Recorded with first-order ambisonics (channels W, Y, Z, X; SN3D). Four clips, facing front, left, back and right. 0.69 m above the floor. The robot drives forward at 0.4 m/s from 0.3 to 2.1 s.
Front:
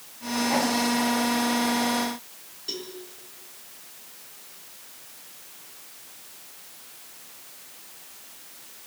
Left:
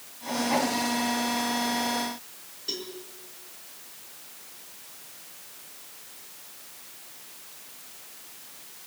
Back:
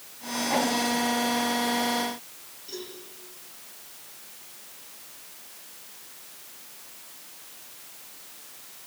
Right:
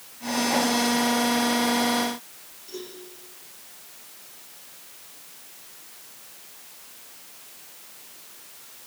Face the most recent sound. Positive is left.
turn(degrees=50)